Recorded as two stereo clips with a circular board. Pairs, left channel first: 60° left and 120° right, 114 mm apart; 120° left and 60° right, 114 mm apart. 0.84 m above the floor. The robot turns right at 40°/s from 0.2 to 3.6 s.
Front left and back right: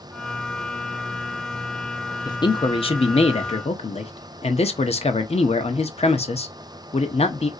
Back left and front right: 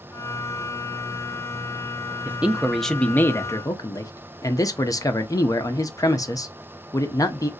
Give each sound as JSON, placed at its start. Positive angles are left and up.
{"t": 2.2, "sound": "a man speaking", "azimuth_deg": 10, "distance_m": 0.5}